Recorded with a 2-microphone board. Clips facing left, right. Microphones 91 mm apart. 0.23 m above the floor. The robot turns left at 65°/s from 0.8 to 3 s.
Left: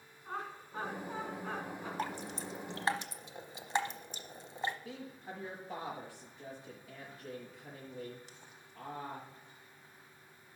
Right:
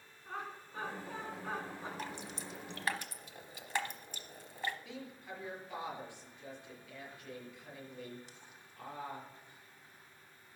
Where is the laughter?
35° left (ahead or behind), 2.5 m; by 1.9 s 25° right (ahead or behind), 2.5 m.